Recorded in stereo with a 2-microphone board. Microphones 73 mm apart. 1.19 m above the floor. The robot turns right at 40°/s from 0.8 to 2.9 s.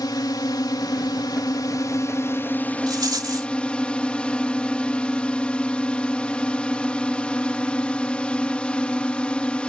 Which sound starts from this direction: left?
A drone, at 0.0 s.